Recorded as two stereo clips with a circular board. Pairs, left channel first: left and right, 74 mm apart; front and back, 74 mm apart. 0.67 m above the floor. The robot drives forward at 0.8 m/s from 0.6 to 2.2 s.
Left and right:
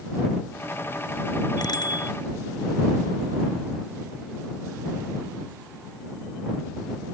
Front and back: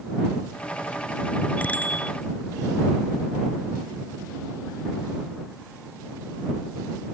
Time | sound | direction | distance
1.6 | a bicycle bell | 70° left | ?